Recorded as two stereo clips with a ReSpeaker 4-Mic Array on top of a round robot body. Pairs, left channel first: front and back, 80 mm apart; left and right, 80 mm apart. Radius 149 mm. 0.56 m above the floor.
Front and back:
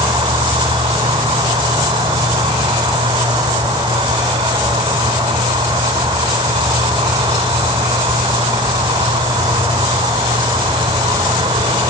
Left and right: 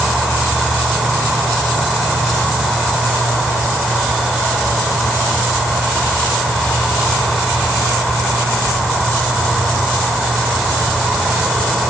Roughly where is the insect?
Behind.